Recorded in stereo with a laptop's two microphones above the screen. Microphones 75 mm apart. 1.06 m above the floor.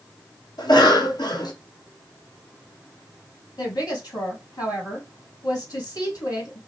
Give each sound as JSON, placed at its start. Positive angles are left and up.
{"t": 0.6, "sound": "a cough", "side_deg": 70, "distance_m": 1.0}
{"t": 3.6, "sound": "a woman speaking", "side_deg": 65, "distance_m": 1.8}